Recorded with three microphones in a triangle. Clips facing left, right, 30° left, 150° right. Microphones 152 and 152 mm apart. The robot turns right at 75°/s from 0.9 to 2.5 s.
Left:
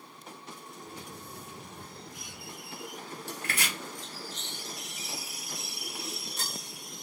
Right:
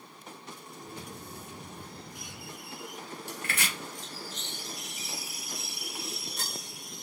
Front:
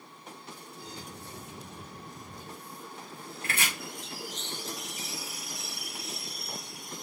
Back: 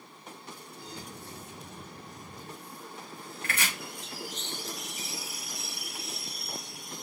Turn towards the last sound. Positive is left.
turn(degrees=65)